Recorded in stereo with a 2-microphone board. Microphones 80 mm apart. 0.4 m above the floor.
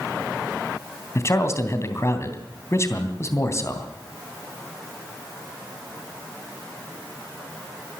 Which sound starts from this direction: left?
A man speaking, at 1.1 s.